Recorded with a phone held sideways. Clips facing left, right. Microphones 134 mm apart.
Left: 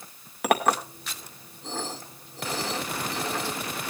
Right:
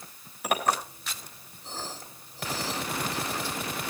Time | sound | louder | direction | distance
0.4 | a clink | left 4 dB | 85° left | 2 m